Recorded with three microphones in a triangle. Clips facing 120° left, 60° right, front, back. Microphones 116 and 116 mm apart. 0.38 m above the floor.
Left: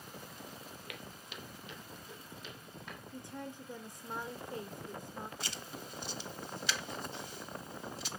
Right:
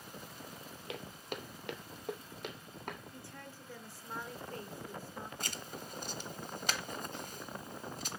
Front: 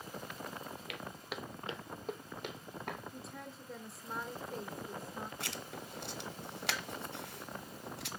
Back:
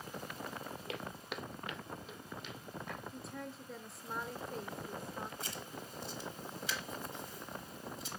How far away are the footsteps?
About 0.8 m.